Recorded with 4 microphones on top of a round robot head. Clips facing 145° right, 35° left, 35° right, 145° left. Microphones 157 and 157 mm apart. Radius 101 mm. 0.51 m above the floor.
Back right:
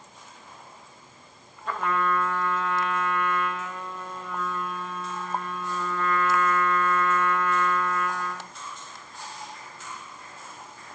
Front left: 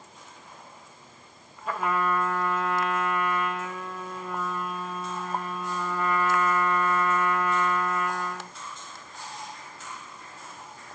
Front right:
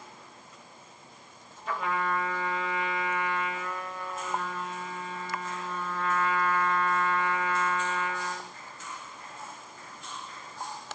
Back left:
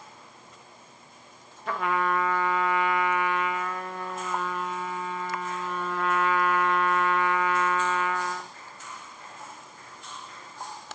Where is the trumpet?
115° left, 0.5 m.